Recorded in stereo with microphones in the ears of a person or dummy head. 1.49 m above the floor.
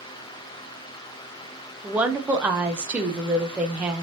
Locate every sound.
1.8 s a woman speaking: 5° right (ahead or behind), 0.5 m